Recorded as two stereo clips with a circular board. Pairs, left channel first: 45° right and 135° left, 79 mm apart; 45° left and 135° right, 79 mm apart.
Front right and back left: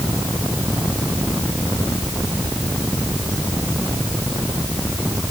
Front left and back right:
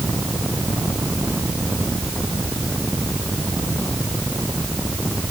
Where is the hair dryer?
No hair dryer in this recording.